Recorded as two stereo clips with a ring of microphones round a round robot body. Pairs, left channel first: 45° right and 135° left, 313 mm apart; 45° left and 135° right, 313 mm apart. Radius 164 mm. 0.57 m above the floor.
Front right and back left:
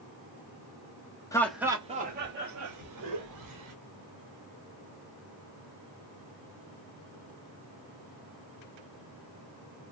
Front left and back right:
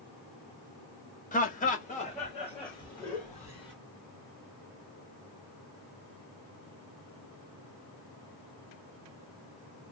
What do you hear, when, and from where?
1.3 s laughter: 20° left, 1.0 m; by 3.7 s 125° left, 2.0 m